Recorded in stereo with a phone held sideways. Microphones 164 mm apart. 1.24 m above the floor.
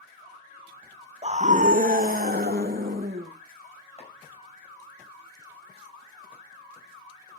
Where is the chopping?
40° left (ahead or behind), 6 m.